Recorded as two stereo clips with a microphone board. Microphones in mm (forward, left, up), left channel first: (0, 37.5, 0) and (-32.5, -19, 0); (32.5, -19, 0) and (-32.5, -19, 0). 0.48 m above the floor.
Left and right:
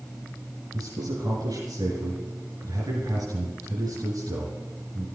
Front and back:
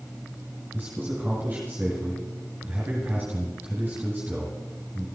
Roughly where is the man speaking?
Behind right.